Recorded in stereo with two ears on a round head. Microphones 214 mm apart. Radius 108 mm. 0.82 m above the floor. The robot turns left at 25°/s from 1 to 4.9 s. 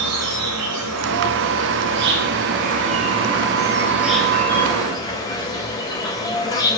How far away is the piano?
No piano in this recording.